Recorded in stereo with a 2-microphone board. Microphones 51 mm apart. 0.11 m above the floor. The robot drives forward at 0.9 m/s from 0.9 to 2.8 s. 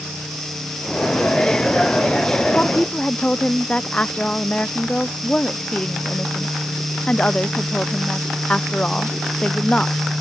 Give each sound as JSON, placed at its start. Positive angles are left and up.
{"t": 2.5, "sound": "a woman speaking", "side_deg": 25}